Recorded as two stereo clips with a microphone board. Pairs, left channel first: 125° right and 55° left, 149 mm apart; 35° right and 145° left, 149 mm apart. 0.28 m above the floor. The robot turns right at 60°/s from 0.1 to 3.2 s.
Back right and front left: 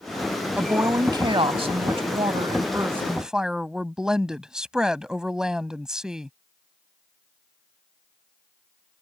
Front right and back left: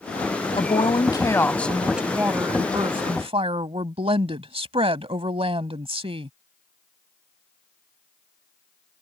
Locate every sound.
0.6 s a woman speaking: 20° right; by 6.3 s 140° left